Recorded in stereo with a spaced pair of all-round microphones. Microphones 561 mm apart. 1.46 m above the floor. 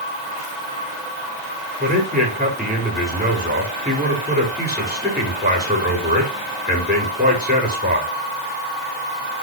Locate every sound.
1.8 s a man speaking: 15° right (ahead or behind), 4.5 m